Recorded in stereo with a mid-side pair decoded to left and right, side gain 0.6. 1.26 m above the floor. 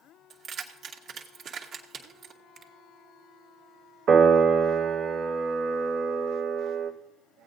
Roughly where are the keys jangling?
Ahead right.